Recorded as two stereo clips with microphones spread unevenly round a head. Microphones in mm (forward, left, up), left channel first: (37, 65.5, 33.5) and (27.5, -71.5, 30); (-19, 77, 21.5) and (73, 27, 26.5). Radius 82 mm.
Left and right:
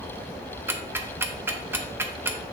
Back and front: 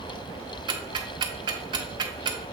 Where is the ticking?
25° right, 0.6 m.